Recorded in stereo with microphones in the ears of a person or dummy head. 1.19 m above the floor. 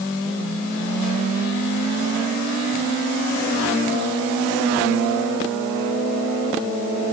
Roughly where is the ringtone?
No ringtone in this recording.